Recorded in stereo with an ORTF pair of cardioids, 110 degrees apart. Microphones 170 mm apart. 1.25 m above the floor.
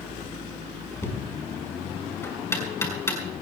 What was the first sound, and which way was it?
Knocking, 15° left.